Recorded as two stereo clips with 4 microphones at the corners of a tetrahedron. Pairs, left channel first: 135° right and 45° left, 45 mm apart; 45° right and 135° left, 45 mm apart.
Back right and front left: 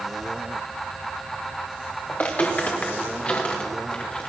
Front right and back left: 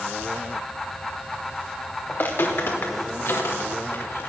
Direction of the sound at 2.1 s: 85° right.